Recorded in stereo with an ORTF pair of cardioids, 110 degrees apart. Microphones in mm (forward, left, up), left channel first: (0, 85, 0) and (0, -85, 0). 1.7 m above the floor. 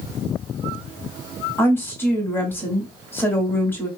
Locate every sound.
1.6 s a woman speaking: 15° left, 1.5 m